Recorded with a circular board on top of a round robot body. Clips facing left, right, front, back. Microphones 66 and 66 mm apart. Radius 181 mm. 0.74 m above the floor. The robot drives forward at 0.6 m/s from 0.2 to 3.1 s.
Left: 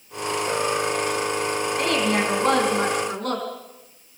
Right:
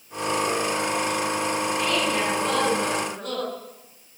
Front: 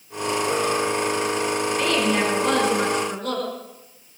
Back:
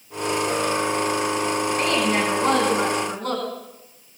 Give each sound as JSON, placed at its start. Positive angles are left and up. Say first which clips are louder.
{"t": 1.8, "sound": "a woman speaking", "louder": "left 5 dB, front 1 dB", "azimuth_deg": 125, "distance_m": 7.0}